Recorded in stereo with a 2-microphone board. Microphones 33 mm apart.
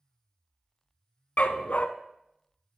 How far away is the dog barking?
About 0.6 m.